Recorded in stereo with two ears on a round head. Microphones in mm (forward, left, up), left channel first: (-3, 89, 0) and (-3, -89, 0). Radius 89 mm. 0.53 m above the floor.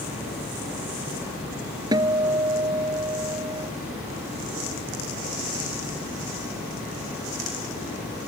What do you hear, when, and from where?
1.9 s a guitar: 20° right (ahead or behind)